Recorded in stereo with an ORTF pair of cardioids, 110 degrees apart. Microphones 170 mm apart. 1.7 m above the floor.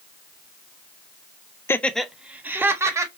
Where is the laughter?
15° left, 0.6 m; by 3.1 s 15° right, 1.7 m.